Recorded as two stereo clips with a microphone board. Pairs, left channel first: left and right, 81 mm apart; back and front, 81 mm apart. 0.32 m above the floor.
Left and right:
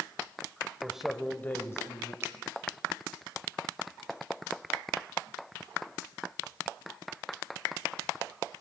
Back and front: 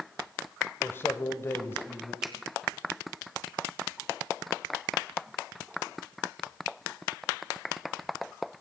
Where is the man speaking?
155° right, 1.0 m; by 2.1 s 125° left, 1.7 m.